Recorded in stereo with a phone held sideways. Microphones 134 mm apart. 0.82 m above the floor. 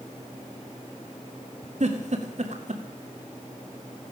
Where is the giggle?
60° right (ahead or behind), 2 m.